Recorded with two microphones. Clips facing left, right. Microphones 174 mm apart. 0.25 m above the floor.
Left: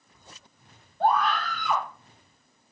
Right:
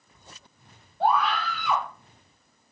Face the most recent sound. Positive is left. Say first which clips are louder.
# even
turn(degrees=-5)  # may be behind; listen again after turning